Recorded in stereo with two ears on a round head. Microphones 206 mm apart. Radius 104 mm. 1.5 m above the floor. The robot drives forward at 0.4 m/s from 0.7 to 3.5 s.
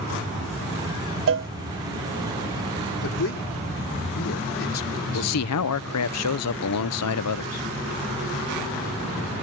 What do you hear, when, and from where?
1.3 s a cowbell: 60° right (ahead or behind); by 1.5 s 55° right (ahead or behind)
3.0 s a man speaking: 65° left (ahead or behind)
5.1 s a man speaking: 80° left